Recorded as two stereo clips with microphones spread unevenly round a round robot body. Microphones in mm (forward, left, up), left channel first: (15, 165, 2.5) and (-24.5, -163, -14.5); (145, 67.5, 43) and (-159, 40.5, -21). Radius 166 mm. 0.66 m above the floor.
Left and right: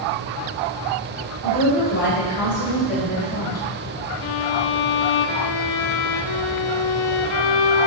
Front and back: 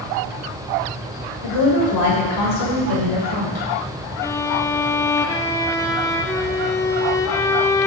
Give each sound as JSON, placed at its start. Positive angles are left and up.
{"t": 1.4, "sound": "a woman speaking", "azimuth_deg": 30, "distance_m": 3.0}
{"t": 4.2, "sound": "a violin", "azimuth_deg": 90, "distance_m": 0.6}